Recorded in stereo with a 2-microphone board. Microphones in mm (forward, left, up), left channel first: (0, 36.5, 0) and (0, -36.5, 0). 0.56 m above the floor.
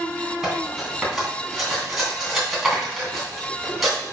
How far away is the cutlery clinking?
About 2.5 m.